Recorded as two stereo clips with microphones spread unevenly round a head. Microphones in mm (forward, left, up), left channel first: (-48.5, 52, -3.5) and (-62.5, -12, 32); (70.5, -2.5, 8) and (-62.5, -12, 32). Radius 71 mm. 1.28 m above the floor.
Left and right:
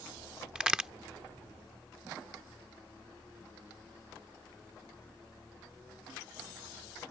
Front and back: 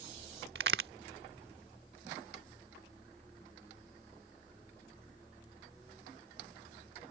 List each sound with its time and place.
0.6 s a crack: 170° right